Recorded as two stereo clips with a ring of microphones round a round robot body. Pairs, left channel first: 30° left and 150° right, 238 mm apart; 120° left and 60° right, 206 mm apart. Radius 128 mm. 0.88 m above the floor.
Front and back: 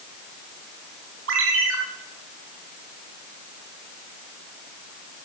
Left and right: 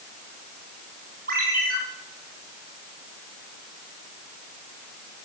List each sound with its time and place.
1.3 s a ringtone: 115° right, 3.5 m